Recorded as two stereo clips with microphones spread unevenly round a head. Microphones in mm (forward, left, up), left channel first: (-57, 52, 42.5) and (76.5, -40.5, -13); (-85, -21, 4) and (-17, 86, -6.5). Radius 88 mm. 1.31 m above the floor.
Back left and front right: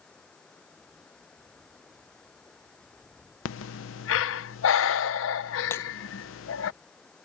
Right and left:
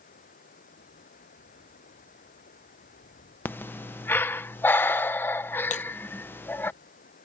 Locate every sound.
0.0 s running water: 130° right
3.5 s breathing: 160° left
5.7 s breaking glass: 140° right